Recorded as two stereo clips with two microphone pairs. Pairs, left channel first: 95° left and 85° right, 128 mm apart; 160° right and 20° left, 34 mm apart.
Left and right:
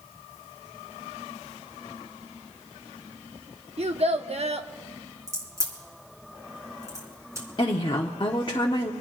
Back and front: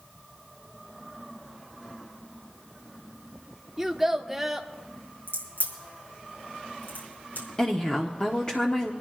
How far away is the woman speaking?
About 0.9 m.